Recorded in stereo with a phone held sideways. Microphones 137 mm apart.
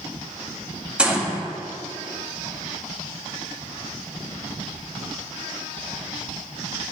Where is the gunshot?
5° right (ahead or behind), 1.8 m.